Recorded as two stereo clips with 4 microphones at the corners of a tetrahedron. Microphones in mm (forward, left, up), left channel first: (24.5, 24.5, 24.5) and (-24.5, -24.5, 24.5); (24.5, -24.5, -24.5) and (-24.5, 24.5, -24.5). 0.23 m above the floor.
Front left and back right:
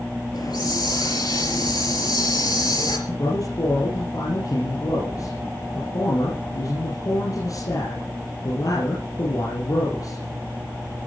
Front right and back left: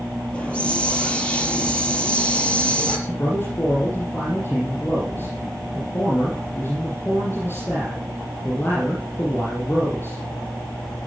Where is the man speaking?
15° left, 7.5 m.